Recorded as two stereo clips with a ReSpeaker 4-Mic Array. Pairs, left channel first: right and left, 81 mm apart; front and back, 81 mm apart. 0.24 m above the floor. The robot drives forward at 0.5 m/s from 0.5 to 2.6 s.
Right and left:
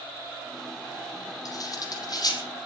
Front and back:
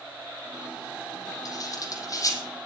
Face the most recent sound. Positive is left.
turn(degrees=-50)